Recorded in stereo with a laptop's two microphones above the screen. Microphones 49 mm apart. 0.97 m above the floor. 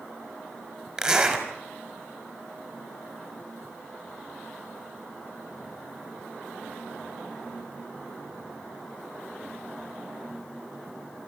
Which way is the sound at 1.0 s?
10° right (ahead or behind).